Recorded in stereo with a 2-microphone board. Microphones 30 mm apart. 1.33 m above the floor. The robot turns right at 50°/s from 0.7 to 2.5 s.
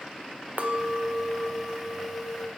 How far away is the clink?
About 0.6 m.